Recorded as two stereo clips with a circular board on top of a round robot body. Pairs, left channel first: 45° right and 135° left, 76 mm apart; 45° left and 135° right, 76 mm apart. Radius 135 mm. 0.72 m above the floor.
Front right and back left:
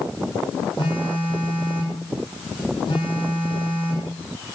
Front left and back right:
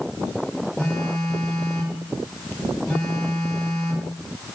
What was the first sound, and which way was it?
A phone buzzing, 35° right.